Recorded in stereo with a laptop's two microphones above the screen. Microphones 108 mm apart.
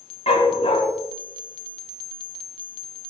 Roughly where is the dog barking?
Left.